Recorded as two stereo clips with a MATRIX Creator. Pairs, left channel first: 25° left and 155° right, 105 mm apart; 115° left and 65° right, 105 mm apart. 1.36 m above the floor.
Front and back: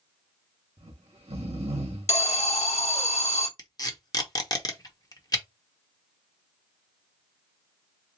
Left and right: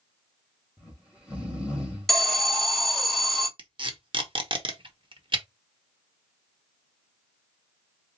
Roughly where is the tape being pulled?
Ahead right.